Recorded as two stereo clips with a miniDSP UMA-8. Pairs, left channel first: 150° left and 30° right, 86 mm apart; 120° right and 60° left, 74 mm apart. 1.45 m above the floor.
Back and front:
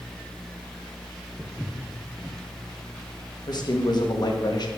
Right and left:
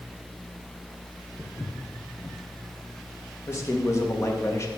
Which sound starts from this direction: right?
Footsteps, at 1.4 s.